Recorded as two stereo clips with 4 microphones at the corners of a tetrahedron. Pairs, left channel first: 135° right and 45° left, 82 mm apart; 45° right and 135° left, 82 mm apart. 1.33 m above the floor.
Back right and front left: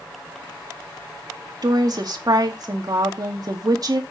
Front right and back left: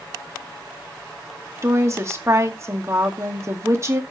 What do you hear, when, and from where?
1.6 s a woman speaking: 80° left, 2 m